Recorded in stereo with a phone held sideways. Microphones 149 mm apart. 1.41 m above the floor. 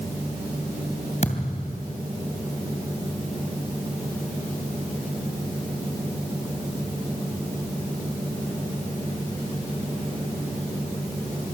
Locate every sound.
1.2 s a thud: 55° left (ahead or behind), 2.5 m